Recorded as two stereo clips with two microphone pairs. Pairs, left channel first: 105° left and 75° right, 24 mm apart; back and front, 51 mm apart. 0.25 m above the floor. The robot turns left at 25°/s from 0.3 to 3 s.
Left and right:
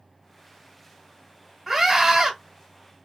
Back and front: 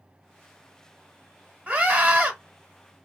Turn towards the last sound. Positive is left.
turn(degrees=-40)